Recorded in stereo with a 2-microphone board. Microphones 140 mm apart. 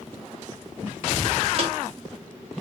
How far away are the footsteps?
About 2.5 m.